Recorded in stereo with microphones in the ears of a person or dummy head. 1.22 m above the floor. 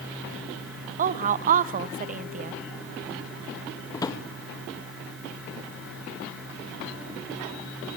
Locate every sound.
1.0 s a woman speaking: 45° right (ahead or behind), 0.7 m
3.9 s a drawer: 25° left (ahead or behind), 0.6 m